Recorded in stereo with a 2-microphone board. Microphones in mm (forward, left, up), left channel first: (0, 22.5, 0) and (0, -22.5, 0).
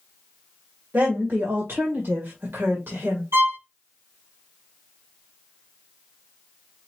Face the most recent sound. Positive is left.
turn(degrees=-80)